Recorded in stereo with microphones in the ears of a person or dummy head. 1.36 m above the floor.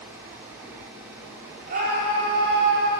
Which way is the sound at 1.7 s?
50° right (ahead or behind).